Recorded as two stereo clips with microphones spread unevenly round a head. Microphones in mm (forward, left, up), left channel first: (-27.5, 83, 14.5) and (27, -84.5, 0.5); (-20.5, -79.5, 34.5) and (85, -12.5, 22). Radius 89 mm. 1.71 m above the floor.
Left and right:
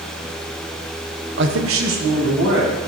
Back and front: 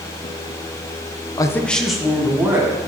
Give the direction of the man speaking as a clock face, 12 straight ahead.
3 o'clock.